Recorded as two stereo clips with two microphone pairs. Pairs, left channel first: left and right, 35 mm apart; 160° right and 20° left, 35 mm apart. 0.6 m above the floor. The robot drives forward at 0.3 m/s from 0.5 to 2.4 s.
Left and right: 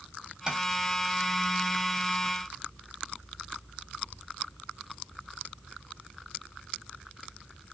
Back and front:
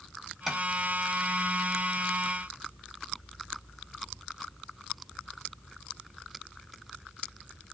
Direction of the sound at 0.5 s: 65° right.